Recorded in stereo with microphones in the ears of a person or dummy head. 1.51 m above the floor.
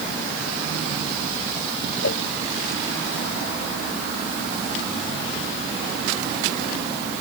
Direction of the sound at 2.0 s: 80° left.